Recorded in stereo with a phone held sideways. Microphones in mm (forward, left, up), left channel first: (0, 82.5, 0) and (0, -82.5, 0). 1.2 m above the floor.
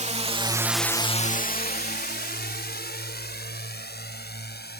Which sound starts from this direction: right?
A drone, at 0.0 s.